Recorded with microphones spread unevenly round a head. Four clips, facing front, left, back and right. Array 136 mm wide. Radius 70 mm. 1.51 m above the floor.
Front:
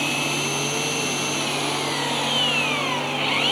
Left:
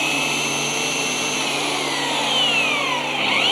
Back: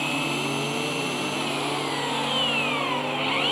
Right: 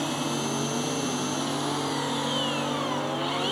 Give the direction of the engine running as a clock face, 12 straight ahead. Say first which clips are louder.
Left 3 dB, front 1 dB; 9 o'clock.